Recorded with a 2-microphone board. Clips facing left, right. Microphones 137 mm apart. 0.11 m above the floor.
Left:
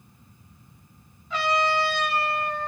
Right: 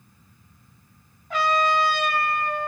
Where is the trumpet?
55° right (ahead or behind), 4 m.